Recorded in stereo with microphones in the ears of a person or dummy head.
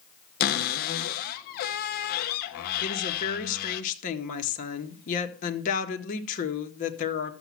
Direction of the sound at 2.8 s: 45° left (ahead or behind).